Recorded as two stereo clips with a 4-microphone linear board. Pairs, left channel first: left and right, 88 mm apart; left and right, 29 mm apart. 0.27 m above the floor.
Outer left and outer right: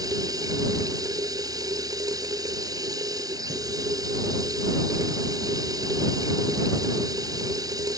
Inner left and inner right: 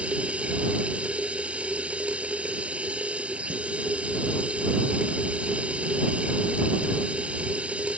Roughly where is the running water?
Right.